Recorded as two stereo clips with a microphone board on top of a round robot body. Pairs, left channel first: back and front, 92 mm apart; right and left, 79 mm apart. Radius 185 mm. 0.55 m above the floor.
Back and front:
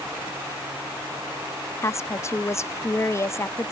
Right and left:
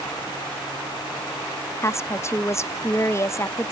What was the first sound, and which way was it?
A woman speaking, 130° right.